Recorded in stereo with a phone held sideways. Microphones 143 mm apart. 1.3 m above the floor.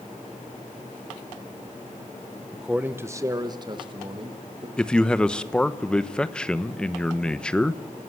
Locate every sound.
2.5 s a man speaking: centre (ahead or behind), 1.2 m; by 4.7 s 40° right (ahead or behind), 3 m
4.8 s a man speaking: 5° left (ahead or behind), 1.1 m